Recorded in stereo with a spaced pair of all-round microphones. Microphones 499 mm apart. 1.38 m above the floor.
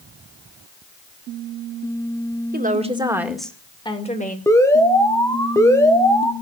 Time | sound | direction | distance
2.5 | a woman speaking | 20° right (ahead or behind) | 2 m
4.5 | an alarm | 5° left (ahead or behind) | 1.8 m